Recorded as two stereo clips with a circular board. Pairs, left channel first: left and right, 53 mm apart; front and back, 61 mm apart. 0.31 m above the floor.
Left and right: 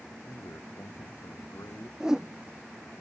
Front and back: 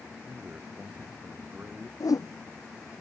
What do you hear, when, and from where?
0.3 s a man speaking: 115° left
2.0 s a whoosh: 10° right